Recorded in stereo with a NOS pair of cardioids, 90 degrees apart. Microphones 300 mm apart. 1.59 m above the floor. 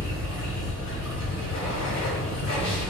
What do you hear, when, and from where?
0.0 s running water: 60° left, 1.3 m